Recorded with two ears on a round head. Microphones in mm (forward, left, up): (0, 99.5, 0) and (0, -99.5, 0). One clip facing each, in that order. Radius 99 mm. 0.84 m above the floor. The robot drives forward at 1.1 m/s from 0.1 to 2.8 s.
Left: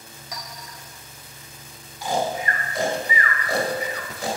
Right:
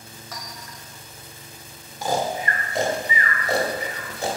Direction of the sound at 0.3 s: 15° left (ahead or behind).